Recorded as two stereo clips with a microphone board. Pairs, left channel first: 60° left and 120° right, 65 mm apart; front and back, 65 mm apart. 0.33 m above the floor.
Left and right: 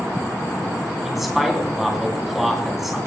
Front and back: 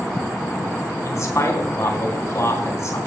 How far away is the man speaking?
About 2.5 m.